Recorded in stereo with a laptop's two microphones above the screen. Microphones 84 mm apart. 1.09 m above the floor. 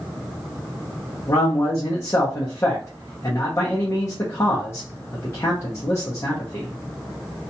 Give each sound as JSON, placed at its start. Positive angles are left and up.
{"t": 1.3, "sound": "a man speaking", "side_deg": 35, "distance_m": 0.5}